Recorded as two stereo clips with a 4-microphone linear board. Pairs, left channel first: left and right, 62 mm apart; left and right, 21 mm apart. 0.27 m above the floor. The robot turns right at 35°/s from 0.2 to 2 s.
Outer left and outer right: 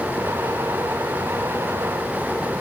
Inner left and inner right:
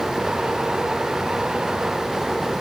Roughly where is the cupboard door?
I don't hear a cupboard door.